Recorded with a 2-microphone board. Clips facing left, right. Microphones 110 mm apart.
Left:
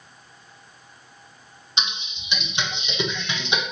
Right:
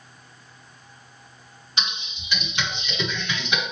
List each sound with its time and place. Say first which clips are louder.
1.8 s typing on a keyboard: left 1 dB; 20° left (ahead or behind), 0.7 m